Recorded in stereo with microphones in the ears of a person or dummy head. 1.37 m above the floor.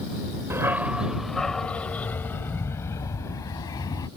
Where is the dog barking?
15° right (ahead or behind); by 4.1 s 20° left (ahead or behind).